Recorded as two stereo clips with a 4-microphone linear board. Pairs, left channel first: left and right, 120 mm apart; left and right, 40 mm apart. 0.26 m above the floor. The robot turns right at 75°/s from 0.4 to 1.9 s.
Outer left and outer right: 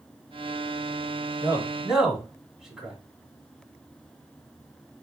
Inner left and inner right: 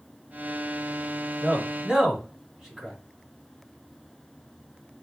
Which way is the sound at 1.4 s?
35° right (ahead or behind).